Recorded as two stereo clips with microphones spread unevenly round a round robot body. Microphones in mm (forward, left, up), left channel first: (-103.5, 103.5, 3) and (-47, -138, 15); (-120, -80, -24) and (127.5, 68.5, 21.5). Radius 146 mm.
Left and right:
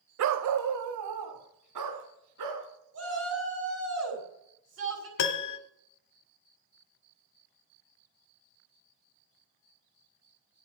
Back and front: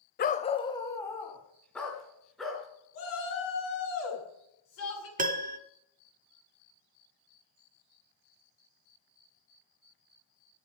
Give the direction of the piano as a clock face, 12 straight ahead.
9 o'clock.